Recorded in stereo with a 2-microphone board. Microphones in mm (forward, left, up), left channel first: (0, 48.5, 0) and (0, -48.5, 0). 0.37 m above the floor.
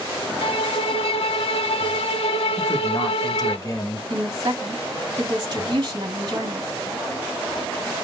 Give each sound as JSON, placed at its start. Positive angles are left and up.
{"t": 0.4, "sound": "a violin", "side_deg": 80, "distance_m": 0.6}
{"t": 2.6, "sound": "a man speaking", "side_deg": 40, "distance_m": 1.0}
{"t": 4.1, "sound": "a woman speaking", "side_deg": -45, "distance_m": 2.5}